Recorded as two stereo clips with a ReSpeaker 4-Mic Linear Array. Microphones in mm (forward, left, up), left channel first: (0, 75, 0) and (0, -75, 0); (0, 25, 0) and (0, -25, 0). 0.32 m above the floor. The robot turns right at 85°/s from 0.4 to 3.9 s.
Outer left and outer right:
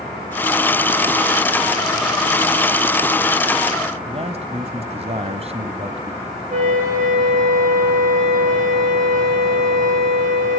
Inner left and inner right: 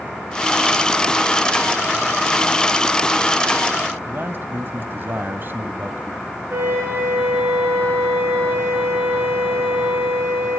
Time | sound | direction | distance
4.1 | a man speaking | 45° right (ahead or behind) | 2.0 m
6.5 | a flute | 60° right (ahead or behind) | 6.5 m